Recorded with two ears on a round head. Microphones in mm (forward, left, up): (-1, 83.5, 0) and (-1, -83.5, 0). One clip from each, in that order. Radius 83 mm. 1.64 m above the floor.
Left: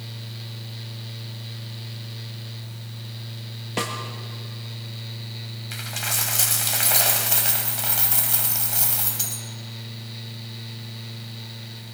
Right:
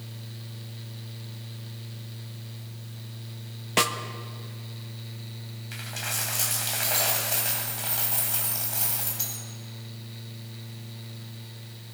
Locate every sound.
3.8 s a snare drum: 40° right (ahead or behind), 1.6 m
5.7 s a dropped coin: 25° left (ahead or behind), 2.5 m